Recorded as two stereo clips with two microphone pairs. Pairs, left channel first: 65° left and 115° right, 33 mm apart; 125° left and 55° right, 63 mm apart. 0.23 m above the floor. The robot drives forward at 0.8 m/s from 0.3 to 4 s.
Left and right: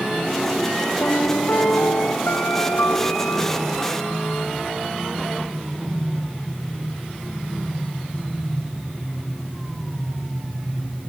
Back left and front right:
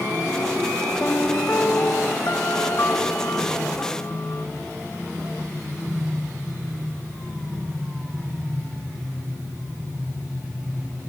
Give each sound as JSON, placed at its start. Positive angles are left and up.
{"t": 1.0, "sound": "a piano", "azimuth_deg": 65}